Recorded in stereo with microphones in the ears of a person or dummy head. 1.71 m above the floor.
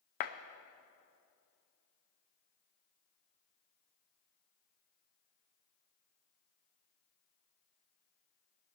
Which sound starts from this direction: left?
A clap, at 0.2 s.